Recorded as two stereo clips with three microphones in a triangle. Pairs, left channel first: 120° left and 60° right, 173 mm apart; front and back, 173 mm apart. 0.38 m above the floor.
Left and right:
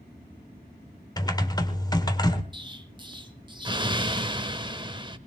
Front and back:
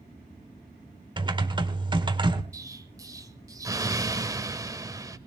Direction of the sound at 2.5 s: 115° right.